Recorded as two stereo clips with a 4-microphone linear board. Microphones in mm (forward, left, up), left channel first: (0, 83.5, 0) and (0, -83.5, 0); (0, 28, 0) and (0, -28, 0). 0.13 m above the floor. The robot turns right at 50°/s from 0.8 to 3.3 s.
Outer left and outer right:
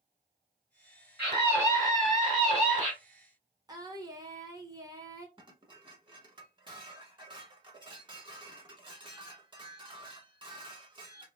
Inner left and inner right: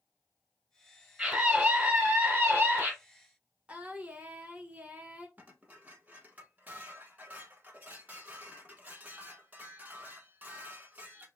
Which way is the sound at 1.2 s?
10° right (ahead or behind).